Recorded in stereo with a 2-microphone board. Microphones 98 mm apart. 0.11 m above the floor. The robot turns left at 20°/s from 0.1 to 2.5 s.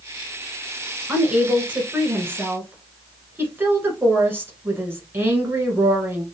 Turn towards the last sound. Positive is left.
turn(degrees=-20)  # may be behind; listen again after turning